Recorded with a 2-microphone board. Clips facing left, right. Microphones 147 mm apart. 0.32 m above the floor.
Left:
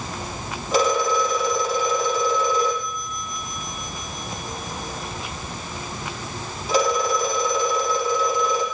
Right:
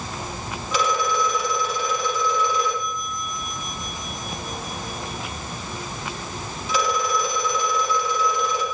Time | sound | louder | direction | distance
0.7 | a phone ringing | left 4 dB | 40° left (ahead or behind) | 6 m